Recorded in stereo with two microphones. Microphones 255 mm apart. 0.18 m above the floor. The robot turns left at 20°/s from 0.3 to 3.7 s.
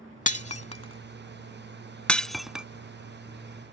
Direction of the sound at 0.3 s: 30° left (ahead or behind).